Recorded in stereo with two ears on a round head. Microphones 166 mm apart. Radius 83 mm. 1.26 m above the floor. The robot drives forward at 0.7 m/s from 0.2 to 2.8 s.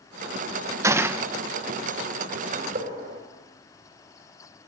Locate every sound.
0.8 s a gunshot: 15° right (ahead or behind), 0.8 m; by 1.3 s 10° right (ahead or behind), 1.1 m
2.5 s a gunshot: 45° right (ahead or behind), 4.5 m